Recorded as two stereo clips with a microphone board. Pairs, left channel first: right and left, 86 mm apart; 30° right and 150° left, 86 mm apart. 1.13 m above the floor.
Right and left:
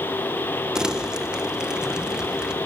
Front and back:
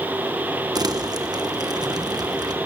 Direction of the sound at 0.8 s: 170° left.